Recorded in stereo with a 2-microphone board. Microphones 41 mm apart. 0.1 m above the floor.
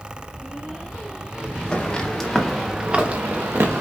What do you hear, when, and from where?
1.7 s footsteps: 25° left (ahead or behind), 1.6 m; by 3.8 s 80° right, 1.3 m